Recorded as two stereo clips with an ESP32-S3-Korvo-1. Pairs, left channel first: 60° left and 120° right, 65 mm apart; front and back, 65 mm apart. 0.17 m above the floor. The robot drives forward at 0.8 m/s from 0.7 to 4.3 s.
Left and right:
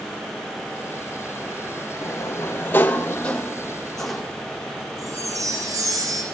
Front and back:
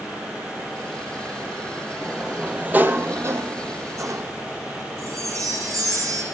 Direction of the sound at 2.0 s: 90° left.